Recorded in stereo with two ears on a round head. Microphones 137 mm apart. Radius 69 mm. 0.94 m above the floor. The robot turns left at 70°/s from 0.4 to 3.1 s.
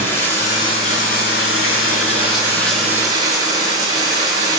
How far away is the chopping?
I don't hear chopping.